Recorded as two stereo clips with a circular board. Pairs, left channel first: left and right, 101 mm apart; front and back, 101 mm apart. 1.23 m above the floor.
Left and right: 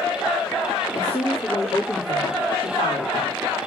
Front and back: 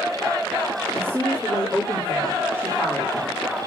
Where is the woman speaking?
115° left, 3.5 m.